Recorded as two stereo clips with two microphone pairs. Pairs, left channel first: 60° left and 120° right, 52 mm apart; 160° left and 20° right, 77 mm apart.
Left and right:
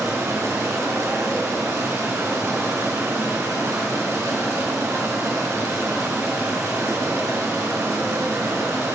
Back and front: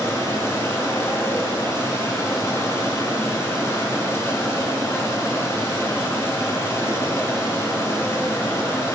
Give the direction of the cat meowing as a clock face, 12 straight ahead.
I don't hear a cat meowing.